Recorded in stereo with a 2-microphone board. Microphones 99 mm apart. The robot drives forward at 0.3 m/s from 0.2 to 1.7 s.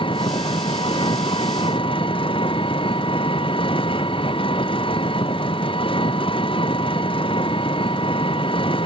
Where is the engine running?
55° left (ahead or behind).